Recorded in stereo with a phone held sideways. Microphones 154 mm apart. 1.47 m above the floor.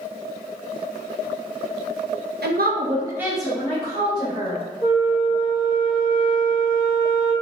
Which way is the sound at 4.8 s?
25° left (ahead or behind).